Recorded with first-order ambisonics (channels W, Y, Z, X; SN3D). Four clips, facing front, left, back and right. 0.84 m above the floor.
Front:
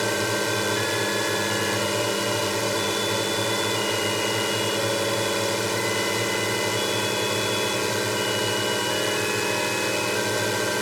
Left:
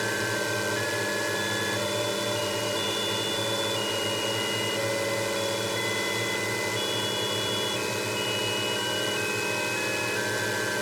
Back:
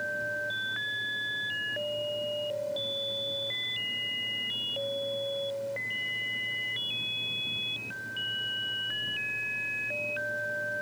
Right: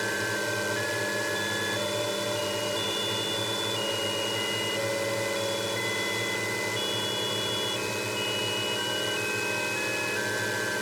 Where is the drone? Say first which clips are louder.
Left 1 dB, front 8 dB; 5° left.